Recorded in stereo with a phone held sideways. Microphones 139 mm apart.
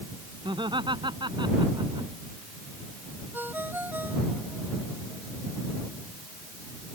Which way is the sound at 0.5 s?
35° right (ahead or behind).